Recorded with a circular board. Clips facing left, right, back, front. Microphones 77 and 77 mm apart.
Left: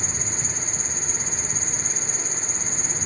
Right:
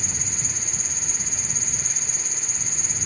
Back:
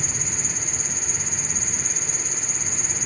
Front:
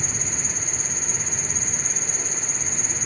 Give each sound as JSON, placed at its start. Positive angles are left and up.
{"t": 0.0, "sound": "an insect", "azimuth_deg": 40}